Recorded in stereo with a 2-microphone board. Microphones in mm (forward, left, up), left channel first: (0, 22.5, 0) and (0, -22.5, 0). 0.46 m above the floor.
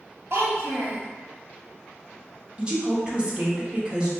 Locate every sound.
0.3 s a child speaking: 60° right (ahead or behind), 1.7 m
2.6 s a woman speaking: 20° right (ahead or behind), 0.7 m